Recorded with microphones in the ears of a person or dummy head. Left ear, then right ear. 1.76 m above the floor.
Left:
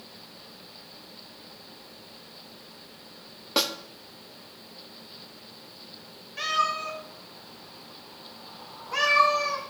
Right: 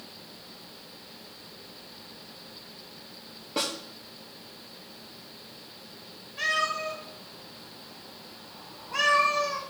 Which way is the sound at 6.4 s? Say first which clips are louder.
Left 1 dB; 65° left (ahead or behind).